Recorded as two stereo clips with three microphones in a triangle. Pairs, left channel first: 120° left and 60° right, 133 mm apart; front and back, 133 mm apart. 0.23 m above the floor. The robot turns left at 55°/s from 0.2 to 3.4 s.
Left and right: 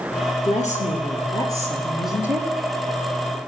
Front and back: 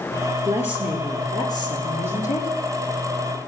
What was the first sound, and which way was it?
A woman speaking, 115° left.